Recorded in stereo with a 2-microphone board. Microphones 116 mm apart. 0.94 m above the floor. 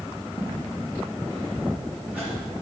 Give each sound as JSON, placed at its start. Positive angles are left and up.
{"t": 0.4, "sound": "footsteps", "side_deg": -25, "distance_m": 5.0}